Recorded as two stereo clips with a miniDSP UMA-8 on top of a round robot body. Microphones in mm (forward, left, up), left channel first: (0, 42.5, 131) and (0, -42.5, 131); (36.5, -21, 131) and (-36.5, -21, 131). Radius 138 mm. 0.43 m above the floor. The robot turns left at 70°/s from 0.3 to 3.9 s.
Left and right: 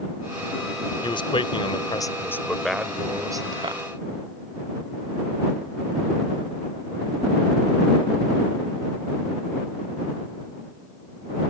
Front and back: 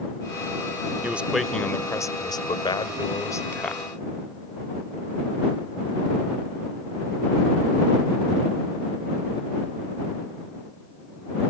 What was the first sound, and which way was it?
A man speaking, 115° left.